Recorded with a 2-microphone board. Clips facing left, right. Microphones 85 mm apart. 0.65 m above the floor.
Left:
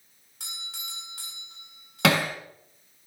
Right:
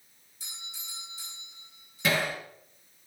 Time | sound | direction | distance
0.4 | a doorbell | 70° left (ahead or behind) | 7.5 m
2.0 | hammering | 80° left | 3 m